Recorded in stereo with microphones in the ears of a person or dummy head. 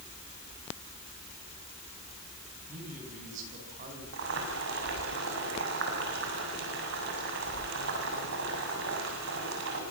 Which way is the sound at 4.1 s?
70° right (ahead or behind).